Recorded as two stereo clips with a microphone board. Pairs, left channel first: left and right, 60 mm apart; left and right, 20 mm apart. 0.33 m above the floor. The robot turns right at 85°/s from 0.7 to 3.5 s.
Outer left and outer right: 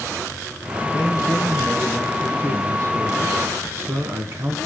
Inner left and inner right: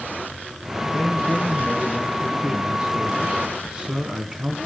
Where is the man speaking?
90° left, 3.5 m; by 4.6 s 50° right, 3.5 m.